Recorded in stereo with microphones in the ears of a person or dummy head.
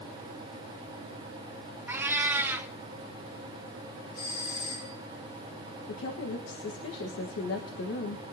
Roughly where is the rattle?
No rattle in this recording.